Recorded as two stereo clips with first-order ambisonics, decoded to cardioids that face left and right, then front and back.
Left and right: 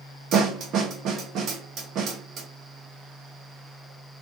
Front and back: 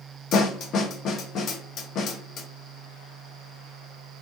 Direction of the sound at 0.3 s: 45° right.